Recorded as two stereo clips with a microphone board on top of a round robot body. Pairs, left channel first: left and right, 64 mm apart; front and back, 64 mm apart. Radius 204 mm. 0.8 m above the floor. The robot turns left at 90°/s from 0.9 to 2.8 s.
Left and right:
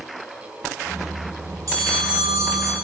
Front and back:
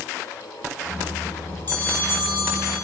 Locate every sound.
1.7 s a bell: 60° right, 9 m; by 2.7 s 155° right, 9 m